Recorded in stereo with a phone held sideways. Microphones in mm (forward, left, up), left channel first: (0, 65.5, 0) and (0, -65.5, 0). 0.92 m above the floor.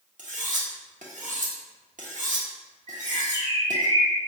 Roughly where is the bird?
Left.